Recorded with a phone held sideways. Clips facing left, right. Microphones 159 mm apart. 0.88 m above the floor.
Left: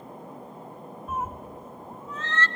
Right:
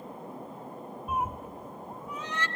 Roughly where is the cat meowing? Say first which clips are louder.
Right 1 dB; centre.